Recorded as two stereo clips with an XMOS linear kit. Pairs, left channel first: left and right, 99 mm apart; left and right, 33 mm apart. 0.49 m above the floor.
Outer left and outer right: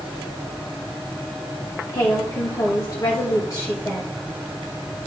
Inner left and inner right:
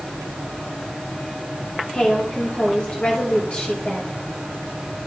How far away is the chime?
No chime in this recording.